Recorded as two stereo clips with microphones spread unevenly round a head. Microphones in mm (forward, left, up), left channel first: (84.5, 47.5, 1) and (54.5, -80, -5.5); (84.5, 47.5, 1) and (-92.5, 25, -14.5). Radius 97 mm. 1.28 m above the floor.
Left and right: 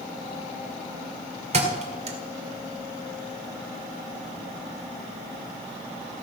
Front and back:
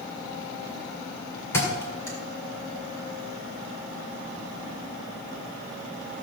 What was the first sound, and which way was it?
A thud, 70° right.